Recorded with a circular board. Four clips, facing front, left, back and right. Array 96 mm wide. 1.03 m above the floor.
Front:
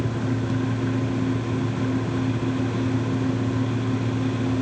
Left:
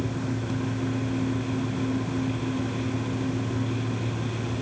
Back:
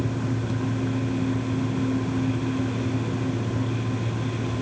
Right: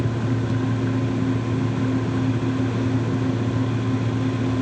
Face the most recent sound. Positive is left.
No sound to turn to.